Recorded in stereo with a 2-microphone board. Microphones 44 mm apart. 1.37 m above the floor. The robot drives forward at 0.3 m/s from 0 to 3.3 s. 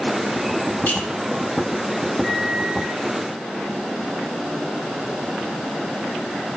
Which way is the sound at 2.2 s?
5° right (ahead or behind).